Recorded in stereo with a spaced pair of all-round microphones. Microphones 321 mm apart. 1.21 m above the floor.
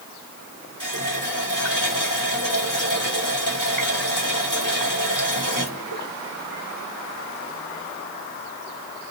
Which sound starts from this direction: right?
A running tap, at 0.8 s.